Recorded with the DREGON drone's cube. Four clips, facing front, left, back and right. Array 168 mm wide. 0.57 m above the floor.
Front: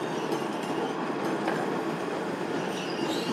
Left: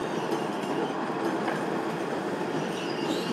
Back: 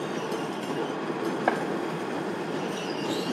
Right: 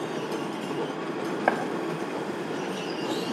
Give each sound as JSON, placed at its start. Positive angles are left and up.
{"t": 1.5, "sound": "chopping", "azimuth_deg": -120, "distance_m": 4.0}